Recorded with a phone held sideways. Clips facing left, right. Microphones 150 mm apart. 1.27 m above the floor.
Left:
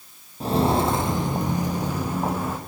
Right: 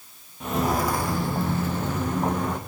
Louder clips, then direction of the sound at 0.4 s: Left 4 dB; 35° left (ahead or behind).